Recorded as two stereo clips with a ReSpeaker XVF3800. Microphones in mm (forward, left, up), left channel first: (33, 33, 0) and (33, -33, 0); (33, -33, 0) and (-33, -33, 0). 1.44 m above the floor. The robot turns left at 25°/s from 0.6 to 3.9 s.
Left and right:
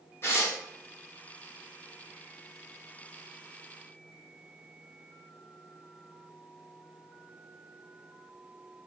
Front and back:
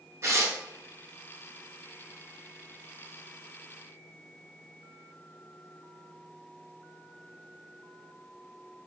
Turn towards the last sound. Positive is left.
turn(degrees=55)